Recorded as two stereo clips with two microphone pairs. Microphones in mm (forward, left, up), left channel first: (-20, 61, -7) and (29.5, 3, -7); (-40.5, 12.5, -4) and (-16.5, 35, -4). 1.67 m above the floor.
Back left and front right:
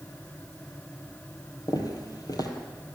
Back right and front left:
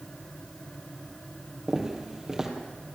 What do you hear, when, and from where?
1.7 s footsteps: 110° left, 2.5 m